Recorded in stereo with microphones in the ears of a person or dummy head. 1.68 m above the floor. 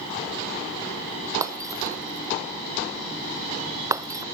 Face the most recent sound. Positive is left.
turn(degrees=-20)  # may be behind; listen again after turning